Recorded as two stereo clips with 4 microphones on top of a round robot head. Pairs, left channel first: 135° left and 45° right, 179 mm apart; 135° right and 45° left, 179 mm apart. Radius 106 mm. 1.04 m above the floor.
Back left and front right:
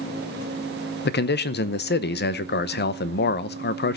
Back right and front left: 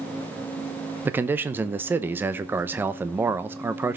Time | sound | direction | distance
1.1 | a man speaking | 125° left | 0.8 m